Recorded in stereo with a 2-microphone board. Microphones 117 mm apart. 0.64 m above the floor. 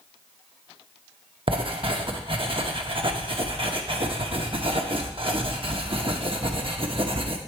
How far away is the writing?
About 0.8 m.